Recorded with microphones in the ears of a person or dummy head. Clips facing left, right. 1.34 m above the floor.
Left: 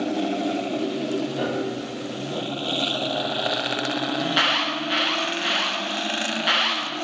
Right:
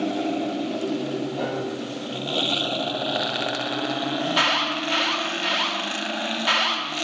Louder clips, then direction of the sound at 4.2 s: Even; 10° left (ahead or behind).